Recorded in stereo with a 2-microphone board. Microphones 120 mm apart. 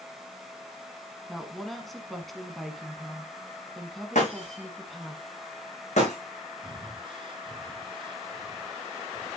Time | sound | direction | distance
1.3 | a woman speaking | centre (ahead or behind) | 1.4 m
4.2 | breaking glass | 80° left | 5.5 m
6.6 | breathing | 45° right (ahead or behind) | 1.7 m